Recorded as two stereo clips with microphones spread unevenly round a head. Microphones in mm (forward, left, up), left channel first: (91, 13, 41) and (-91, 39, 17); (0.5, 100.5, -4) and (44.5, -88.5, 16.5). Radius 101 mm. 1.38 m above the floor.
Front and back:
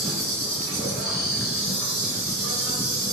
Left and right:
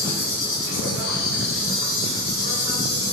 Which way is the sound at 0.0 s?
75° left.